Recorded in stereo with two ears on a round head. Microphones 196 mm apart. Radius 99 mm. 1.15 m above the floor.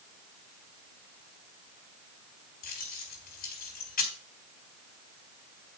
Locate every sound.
2.6 s keys jangling: 40° left (ahead or behind), 4 m